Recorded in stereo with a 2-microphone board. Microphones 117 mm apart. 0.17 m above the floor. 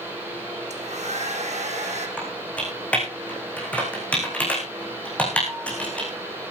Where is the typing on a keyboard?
10° left (ahead or behind), 8 m.